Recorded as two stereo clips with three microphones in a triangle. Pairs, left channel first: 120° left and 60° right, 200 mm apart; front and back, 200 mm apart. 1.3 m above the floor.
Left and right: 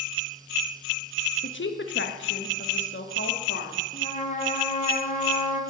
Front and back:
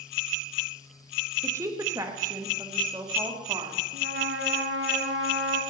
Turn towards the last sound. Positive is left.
turn(degrees=170)